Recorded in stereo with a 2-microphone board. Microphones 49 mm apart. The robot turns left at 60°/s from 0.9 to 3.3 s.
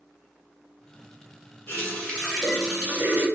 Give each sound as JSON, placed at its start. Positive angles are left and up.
{"t": 1.7, "sound": "a running tap", "azimuth_deg": 50, "distance_m": 2.0}